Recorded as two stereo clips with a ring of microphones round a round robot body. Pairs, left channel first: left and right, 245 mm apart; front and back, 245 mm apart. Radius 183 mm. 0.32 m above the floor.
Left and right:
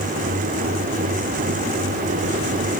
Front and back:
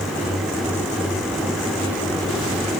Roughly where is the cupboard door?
No cupboard door in this recording.